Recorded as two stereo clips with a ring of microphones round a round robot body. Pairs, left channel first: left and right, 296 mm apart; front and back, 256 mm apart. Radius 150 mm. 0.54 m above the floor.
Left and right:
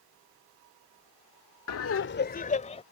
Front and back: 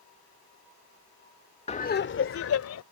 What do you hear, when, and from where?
1.7 s laughter: 65° left; by 2.8 s 20° left